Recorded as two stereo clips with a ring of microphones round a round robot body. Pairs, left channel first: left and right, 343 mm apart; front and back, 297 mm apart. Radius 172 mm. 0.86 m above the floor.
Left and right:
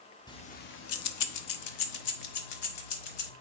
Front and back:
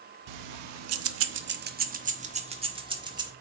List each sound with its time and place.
0.3 s keys jangling: 170° left, 0.8 m; by 3.3 s 105° left, 2 m